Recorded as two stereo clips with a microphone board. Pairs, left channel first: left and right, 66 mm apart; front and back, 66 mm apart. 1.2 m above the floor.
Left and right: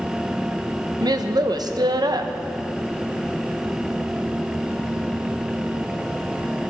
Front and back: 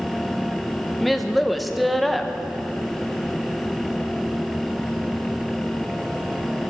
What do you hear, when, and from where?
1.0 s a woman speaking: 90° right, 0.9 m